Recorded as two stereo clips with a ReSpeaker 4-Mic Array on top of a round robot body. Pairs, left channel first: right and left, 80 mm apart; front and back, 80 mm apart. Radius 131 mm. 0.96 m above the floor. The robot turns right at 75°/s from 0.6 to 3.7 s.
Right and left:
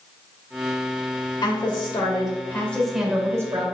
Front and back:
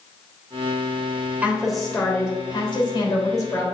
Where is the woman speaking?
110° right, 3 m; by 3.6 s 55° left, 3 m.